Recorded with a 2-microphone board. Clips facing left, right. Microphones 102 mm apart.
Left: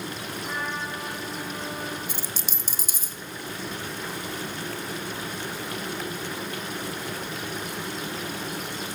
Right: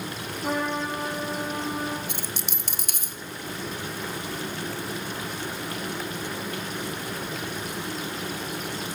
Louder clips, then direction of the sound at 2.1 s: Right 1 dB; 60° right (ahead or behind).